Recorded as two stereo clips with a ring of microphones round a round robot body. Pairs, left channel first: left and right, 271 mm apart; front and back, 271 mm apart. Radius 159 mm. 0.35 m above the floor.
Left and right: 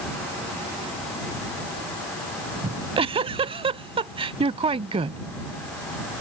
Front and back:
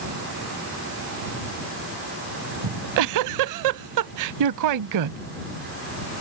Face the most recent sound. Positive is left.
turn(degrees=-160)